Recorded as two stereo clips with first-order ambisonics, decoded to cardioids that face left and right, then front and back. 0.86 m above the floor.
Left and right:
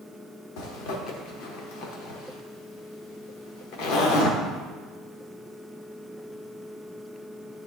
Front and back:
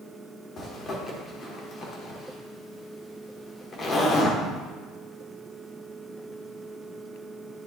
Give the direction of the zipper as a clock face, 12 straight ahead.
10 o'clock.